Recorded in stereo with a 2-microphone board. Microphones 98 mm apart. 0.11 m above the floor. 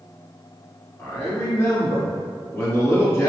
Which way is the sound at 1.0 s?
30° left (ahead or behind).